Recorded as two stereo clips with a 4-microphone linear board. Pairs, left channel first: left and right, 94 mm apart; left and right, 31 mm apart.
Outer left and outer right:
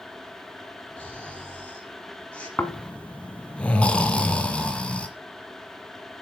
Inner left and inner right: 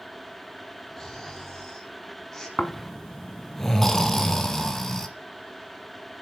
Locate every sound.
1.0 s snoring: 10° left (ahead or behind), 4.5 m
2.6 s snoring: 15° left (ahead or behind), 1.5 m